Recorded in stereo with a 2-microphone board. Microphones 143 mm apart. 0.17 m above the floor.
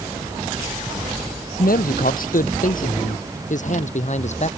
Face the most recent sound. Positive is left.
turn(degrees=50)  # may be behind; listen again after turning